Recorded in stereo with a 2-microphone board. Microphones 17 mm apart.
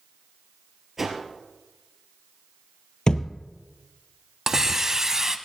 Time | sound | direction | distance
1.0 | a whoosh | 15° right (ahead or behind) | 2.5 m
3.1 | a thud | 50° left (ahead or behind) | 0.7 m
4.5 | a hiss | 30° right (ahead or behind) | 0.7 m